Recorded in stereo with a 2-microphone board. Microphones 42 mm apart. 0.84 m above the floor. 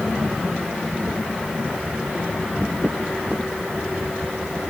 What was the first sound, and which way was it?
Only background noise.